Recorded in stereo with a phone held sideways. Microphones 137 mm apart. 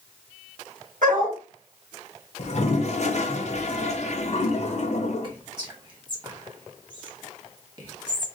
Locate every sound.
1.0 s a dog barking: 70° right (ahead or behind), 2.5 m
2.4 s a toilet flushing: 55° left (ahead or behind), 0.7 m
5.2 s whispering: 35° right (ahead or behind), 1.8 m